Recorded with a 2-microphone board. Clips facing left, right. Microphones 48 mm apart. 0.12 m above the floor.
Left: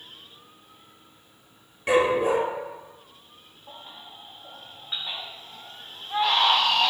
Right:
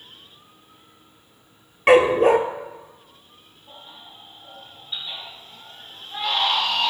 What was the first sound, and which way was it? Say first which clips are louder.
A dog barking: right 7 dB; 65° right (ahead or behind).